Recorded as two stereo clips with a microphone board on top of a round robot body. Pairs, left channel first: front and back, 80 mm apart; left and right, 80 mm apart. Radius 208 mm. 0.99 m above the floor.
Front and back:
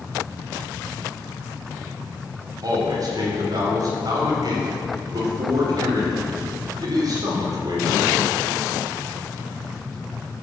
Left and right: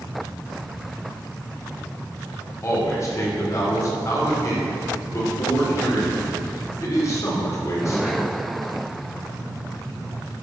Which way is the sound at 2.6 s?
140° left.